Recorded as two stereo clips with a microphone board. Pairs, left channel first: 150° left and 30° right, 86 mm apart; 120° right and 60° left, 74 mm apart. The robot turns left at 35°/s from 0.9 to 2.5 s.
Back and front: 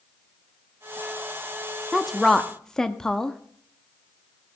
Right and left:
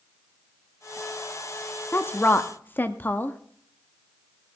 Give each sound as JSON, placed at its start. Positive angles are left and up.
{"t": 1.9, "sound": "a woman speaking", "azimuth_deg": -115, "distance_m": 0.6}